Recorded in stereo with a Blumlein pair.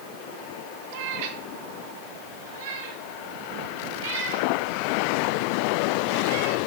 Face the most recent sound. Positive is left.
turn(degrees=-60)